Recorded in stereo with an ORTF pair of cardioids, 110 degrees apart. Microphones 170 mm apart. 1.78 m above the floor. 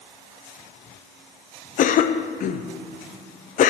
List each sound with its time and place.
1.8 s a cough: 50° left, 0.6 m